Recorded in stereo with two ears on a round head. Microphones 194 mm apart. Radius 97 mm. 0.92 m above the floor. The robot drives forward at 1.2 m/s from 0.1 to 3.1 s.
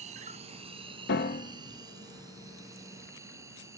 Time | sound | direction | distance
0.0 | an insect | 35° right (ahead or behind) | ?
1.1 | a piano | 50° left (ahead or behind) | ?